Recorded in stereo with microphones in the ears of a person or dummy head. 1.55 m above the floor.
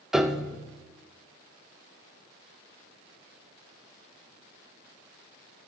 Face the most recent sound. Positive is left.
turn(degrees=0)  # may be behind; listen again after turning